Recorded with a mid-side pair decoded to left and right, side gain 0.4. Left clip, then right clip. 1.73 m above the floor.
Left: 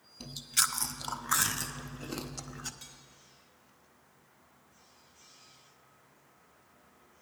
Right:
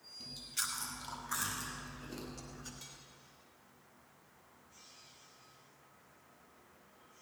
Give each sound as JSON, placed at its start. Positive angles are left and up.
{"t": 0.2, "sound": "chewing", "azimuth_deg": 70, "distance_m": 0.7}
{"t": 2.8, "sound": "cutlery clinking", "azimuth_deg": 15, "distance_m": 3.0}